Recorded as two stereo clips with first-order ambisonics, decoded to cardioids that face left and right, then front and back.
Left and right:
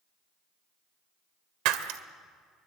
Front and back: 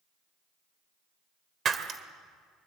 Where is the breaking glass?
115° right, 1.6 m.